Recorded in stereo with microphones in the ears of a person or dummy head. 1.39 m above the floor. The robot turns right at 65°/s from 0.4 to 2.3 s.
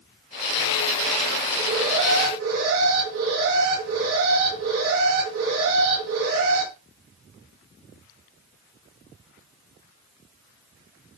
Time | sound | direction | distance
1.5 | an alarm | 125° right | 7 m